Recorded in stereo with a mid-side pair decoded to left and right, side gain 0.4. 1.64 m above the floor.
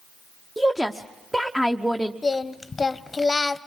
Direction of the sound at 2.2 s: 30° left.